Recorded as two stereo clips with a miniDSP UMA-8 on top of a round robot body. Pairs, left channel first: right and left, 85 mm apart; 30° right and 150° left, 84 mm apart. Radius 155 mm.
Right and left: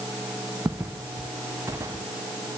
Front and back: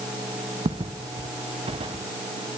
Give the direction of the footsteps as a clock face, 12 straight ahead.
7 o'clock.